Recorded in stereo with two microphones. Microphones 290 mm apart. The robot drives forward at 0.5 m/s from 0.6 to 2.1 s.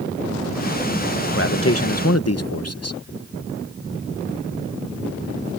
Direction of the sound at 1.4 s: 40° left (ahead or behind).